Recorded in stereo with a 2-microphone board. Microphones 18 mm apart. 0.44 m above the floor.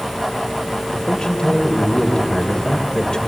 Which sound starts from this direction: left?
A man speaking, at 0.9 s.